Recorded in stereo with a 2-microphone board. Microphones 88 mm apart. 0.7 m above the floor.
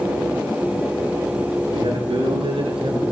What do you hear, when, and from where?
1.7 s a man speaking: 75° right (ahead or behind), 10 m; by 3.0 s 65° right (ahead or behind), 9 m